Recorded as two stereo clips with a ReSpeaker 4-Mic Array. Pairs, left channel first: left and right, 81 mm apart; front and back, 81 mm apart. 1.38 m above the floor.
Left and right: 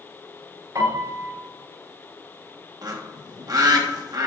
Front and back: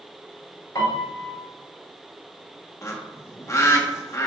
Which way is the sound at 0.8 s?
40° right.